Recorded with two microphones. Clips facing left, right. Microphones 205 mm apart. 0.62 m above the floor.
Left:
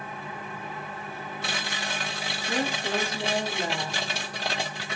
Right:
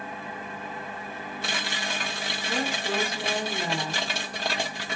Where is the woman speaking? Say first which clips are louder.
Left 1 dB; 25° left (ahead or behind), 0.8 m.